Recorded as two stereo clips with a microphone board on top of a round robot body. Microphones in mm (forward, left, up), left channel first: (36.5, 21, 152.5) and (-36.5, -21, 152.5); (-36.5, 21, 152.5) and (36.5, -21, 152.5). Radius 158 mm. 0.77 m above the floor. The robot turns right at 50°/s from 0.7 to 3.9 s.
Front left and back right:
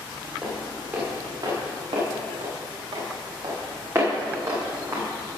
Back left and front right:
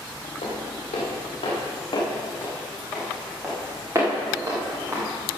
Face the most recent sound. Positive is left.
turn(degrees=-95)